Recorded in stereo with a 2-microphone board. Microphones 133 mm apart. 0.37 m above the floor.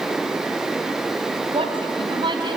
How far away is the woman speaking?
About 3 m.